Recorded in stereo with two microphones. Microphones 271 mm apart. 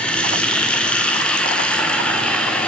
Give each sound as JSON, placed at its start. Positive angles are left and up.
{"t": 0.0, "sound": "running water", "side_deg": 5, "distance_m": 4.5}